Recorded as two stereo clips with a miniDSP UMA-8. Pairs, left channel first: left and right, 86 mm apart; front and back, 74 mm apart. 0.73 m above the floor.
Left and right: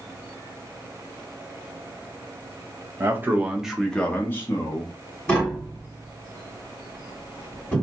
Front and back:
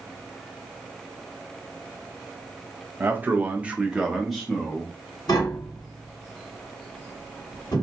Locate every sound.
3.0 s a man speaking: 130° right, 0.8 m; by 5.0 s 80° left, 0.9 m
5.3 s tapping: 10° left, 1.9 m